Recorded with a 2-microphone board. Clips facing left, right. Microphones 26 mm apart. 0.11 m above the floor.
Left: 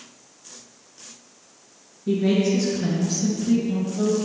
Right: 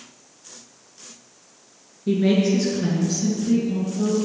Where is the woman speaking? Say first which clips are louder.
Right 1 dB; 30° right (ahead or behind), 1.9 m; by 4.1 s 30° left (ahead or behind), 1.8 m.